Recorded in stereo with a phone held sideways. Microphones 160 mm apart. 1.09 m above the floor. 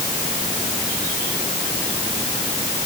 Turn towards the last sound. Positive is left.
No sound to turn to.